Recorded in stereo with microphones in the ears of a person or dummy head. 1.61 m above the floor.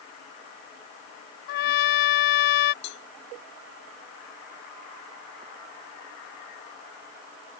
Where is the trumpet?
65° left (ahead or behind).